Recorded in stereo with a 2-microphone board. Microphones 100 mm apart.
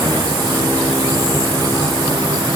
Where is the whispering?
No whispering in this recording.